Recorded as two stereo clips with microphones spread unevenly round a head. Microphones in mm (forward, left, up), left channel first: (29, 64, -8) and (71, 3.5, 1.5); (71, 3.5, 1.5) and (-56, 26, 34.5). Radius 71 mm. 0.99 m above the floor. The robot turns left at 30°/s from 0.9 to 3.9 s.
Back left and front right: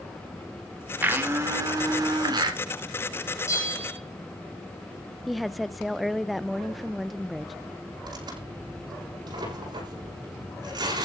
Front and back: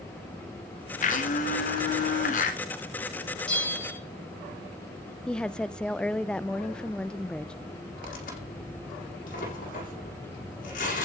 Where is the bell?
75° left, 6 m; by 4.0 s 60° left, 6 m.